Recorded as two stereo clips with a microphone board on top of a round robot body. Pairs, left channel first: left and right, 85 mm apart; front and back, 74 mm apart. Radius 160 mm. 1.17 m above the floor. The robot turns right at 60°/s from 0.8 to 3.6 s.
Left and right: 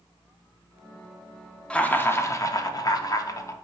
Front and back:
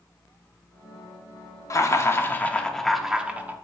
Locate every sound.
1.7 s laughter: 15° left, 0.7 m; by 3.5 s 125° left, 0.7 m